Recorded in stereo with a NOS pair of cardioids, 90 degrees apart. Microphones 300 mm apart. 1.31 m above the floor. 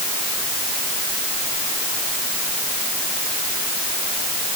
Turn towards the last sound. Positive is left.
No sound to turn to.